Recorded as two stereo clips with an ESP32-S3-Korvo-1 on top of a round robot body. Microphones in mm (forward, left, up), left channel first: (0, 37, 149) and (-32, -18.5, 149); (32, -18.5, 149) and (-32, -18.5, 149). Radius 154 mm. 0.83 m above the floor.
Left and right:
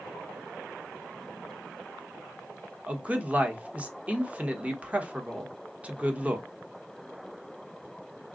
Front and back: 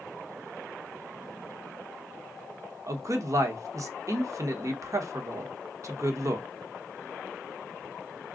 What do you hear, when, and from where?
2.9 s a man speaking: 175° left, 1.2 m